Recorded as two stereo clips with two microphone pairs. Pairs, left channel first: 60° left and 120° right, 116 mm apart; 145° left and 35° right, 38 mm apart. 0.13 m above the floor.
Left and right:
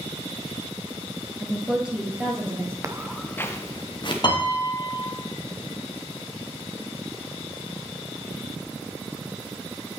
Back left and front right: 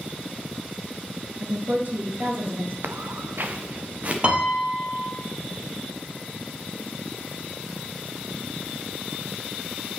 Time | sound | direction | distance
1.4 | a woman speaking | 30° right | 1.5 m
2.8 | footsteps | 55° right | 0.7 m
4.2 | a piano | 15° left | 1.3 m